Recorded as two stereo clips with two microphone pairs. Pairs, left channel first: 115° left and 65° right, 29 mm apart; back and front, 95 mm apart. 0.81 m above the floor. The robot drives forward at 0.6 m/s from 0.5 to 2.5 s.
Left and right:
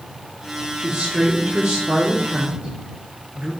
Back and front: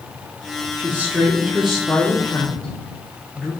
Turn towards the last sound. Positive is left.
turn(degrees=-105)